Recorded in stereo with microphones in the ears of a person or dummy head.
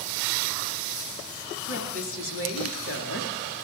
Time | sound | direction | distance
1.7 | a woman speaking | 80° left | 3.5 m